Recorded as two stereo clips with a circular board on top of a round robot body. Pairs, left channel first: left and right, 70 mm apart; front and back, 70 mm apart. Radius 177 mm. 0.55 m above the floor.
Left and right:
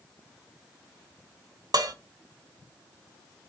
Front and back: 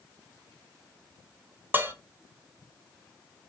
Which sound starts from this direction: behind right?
Dishes clattering, at 1.7 s.